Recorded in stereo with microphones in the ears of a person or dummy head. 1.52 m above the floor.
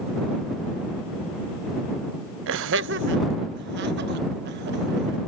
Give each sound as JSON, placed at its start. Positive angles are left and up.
{"t": 2.5, "sound": "laughter", "side_deg": -60}